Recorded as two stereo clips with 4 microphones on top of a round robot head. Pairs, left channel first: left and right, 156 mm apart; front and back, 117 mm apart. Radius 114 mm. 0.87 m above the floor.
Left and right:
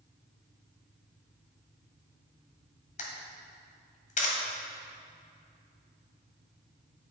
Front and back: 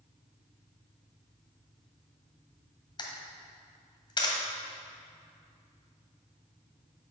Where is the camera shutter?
50° left, 1.6 m.